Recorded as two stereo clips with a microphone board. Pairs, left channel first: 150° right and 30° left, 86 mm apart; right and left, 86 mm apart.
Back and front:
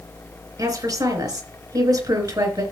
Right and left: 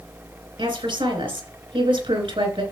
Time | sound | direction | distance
0.6 | a woman speaking | 75° left | 4.5 m